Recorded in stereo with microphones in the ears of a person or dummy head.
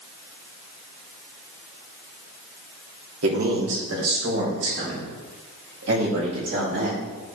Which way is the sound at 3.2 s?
75° right (ahead or behind).